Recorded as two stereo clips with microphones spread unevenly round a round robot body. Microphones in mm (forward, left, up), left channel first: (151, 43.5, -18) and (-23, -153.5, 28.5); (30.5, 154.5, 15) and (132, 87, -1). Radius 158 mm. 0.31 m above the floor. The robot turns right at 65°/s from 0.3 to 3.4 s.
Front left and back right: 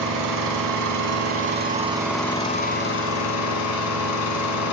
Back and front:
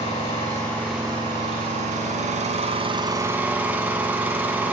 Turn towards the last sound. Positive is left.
turn(degrees=45)